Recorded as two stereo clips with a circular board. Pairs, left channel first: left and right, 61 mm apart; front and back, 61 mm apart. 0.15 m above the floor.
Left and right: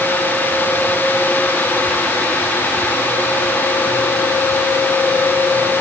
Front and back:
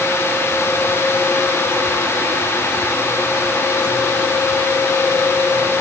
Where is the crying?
I don't hear crying.